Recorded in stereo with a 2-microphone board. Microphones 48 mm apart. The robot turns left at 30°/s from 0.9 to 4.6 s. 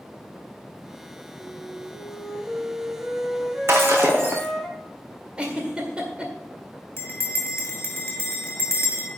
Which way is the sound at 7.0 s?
50° left (ahead or behind).